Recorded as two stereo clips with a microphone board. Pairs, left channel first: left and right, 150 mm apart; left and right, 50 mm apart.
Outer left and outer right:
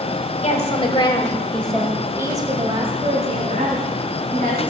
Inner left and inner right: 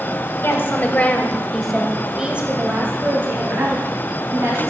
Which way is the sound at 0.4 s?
50° left (ahead or behind).